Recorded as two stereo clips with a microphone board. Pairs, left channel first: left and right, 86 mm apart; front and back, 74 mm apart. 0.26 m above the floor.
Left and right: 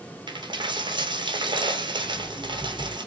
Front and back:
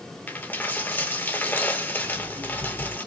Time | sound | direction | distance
0.3 | a dropped coin | 65° right | 0.9 m
2.0 | an alarm clock | 175° right | 1.4 m